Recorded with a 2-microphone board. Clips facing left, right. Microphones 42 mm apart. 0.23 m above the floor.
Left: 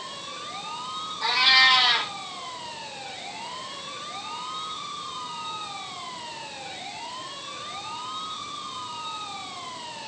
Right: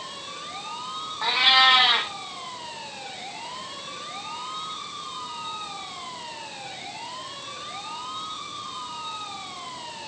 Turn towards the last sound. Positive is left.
turn(degrees=-30)  # may be behind; listen again after turning